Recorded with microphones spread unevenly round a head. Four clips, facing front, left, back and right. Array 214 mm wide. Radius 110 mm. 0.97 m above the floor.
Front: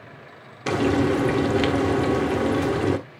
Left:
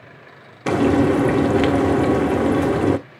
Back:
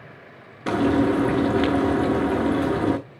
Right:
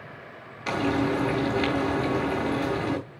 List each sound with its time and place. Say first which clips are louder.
0.7 s frying: left 9 dB, back 1 dB; 100° left, 0.8 m